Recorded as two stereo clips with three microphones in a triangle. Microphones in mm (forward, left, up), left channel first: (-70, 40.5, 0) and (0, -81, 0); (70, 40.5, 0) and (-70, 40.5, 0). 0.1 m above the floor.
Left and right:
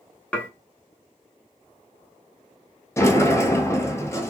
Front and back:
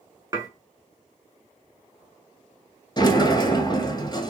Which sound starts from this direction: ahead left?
A sliding door, at 3.0 s.